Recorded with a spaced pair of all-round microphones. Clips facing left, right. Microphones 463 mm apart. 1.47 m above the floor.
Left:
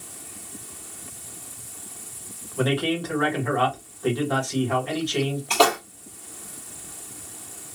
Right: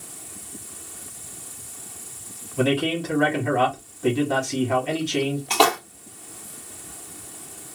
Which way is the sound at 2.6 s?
45° right (ahead or behind).